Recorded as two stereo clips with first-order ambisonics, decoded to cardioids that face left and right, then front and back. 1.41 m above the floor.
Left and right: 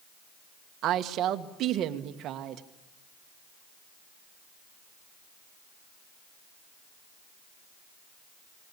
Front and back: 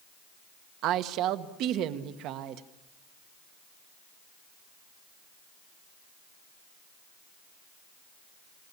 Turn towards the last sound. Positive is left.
turn(degrees=-140)